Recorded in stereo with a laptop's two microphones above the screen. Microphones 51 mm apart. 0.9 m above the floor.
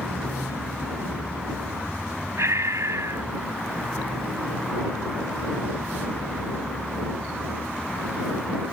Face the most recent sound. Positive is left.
turn(degrees=-80)